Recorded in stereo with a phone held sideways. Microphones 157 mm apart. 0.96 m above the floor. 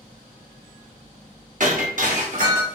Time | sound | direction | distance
1.6 | breaking glass | 60° right (ahead or behind) | 1.2 m